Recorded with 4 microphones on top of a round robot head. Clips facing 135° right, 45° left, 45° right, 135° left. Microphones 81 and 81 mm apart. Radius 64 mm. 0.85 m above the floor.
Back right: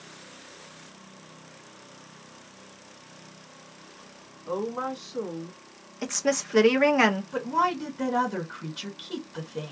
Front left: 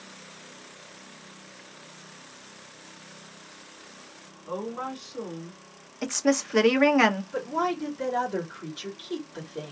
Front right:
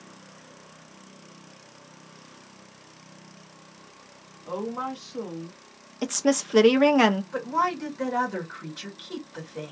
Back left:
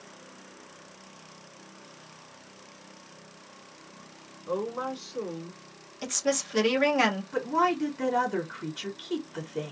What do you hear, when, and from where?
4.5 s a woman speaking: 65° right, 1.8 m
6.0 s a woman speaking: 40° right, 0.6 m
7.3 s a woman speaking: 125° right, 1.4 m